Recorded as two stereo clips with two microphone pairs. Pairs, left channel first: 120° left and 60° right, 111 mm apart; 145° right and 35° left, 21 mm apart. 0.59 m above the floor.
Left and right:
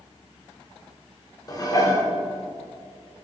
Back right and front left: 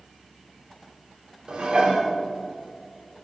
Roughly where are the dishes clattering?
Left.